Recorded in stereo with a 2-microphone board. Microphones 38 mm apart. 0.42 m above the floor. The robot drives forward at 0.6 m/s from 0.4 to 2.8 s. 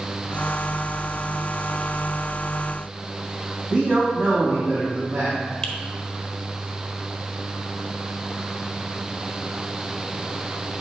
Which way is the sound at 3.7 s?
45° right (ahead or behind).